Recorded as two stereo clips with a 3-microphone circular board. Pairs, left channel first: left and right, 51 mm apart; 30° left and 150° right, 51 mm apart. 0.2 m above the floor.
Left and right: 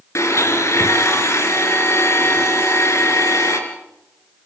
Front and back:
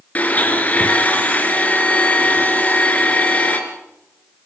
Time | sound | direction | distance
0.1 | a blender | 85° left | 3 m